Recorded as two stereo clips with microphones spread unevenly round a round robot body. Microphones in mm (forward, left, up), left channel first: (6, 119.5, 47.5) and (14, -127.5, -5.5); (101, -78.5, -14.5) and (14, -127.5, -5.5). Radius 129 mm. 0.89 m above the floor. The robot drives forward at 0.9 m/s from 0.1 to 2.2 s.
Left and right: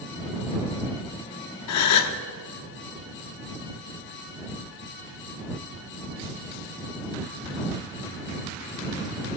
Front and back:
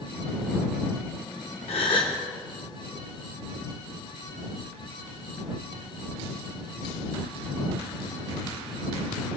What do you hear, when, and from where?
1.7 s a gasp: 75° left, 0.8 m; by 2.2 s 110° left, 0.8 m